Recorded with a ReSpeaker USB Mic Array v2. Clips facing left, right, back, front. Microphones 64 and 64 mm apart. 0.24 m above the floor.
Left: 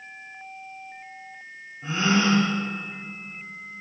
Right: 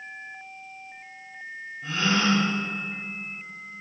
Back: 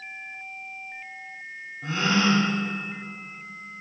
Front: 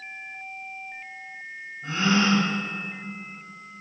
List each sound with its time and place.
1.8 s a gasp: 155° left, 5.5 m